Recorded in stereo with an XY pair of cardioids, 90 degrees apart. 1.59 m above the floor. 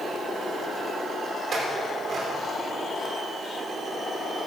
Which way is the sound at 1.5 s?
50° right.